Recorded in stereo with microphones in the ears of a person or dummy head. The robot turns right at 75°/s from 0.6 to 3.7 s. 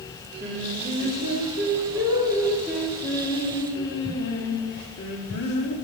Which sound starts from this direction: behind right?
Singing, at 0.4 s.